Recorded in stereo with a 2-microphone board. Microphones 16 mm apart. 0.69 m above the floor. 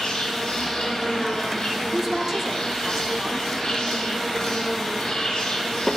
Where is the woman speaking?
25° right (ahead or behind), 1.4 m.